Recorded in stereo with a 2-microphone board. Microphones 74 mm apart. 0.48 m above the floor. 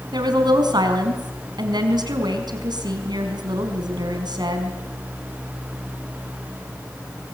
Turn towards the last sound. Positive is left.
turn(degrees=-75)  # may be behind; listen again after turning